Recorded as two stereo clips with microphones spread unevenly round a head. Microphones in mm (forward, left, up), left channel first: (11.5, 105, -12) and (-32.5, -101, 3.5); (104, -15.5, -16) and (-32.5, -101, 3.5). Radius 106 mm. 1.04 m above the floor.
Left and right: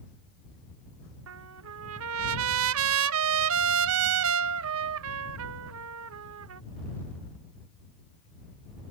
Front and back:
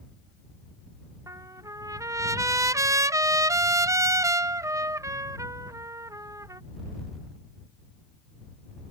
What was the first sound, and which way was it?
A trumpet, 75° right.